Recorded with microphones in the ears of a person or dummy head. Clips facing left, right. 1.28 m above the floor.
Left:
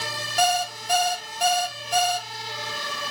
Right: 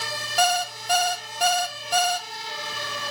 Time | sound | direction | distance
0.4 | an alarm clock | 60° right (ahead or behind) | 0.6 m